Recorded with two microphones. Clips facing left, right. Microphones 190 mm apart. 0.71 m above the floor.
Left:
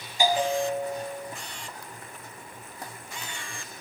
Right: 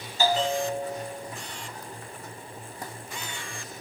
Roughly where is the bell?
Centre.